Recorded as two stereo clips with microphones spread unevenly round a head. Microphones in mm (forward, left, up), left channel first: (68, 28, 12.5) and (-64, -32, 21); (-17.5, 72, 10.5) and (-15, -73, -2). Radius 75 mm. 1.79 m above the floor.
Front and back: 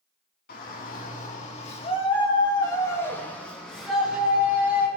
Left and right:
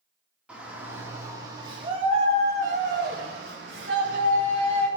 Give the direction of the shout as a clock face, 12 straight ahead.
12 o'clock.